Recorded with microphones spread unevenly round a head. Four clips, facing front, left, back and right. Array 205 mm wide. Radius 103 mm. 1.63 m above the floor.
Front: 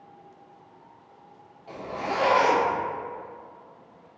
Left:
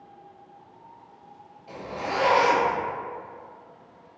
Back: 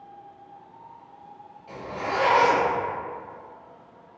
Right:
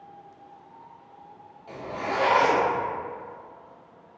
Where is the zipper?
45° right, 1.5 m.